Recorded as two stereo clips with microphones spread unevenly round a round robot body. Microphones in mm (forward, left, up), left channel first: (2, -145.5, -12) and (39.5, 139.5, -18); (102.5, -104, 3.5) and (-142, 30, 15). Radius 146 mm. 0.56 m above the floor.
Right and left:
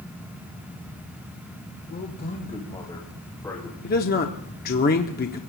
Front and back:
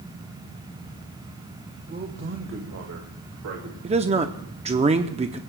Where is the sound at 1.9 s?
150° right, 1.8 m; by 3.7 s straight behind, 3 m.